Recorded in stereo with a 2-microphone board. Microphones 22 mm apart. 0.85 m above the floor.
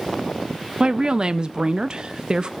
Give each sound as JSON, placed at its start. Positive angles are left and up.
{"t": 0.8, "sound": "a woman speaking", "side_deg": -40, "distance_m": 0.8}